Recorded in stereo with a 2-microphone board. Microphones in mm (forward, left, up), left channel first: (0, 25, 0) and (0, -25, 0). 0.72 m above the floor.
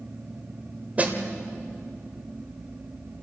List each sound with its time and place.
1.0 s a snare drum: 30° right (ahead or behind), 2.0 m